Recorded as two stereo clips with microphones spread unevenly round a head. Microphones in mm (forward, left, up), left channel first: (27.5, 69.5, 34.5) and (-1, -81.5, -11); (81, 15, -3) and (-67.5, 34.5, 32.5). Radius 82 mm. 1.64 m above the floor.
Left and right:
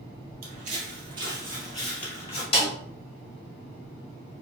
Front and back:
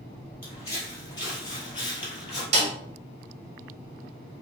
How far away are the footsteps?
About 2.0 m.